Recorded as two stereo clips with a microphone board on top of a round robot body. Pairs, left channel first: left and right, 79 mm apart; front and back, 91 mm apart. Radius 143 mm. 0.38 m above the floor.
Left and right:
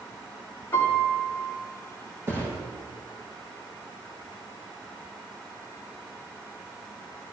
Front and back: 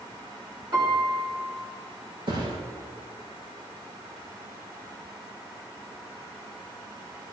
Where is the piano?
145° left, 5.5 m.